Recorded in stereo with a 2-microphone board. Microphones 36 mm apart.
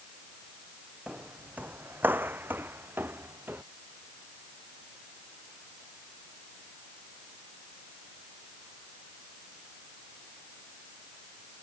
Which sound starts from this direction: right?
Footsteps, at 1.1 s.